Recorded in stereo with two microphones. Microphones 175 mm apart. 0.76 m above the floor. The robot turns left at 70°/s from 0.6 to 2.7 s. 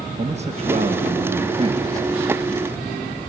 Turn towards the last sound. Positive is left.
turn(degrees=155)